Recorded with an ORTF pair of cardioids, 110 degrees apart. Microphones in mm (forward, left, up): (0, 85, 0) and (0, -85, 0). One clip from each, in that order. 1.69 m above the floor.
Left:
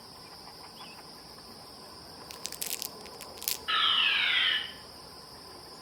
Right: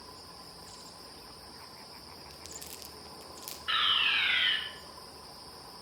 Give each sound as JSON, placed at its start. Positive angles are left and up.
{"t": 2.3, "sound": "crumpling", "azimuth_deg": 50, "distance_m": 0.7}
{"t": 3.7, "sound": "a fire alarm", "azimuth_deg": -5, "distance_m": 3.0}